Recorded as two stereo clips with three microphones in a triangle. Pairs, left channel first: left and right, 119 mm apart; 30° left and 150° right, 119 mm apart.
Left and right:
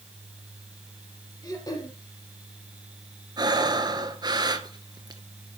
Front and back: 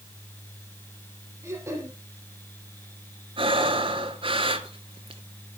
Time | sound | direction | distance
1.4 | throat clearing | 145° left | 3.5 m
3.4 | breathing | 130° right | 1.1 m